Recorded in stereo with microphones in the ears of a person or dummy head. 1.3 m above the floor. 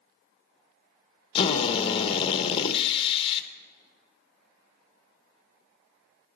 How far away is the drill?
About 0.9 m.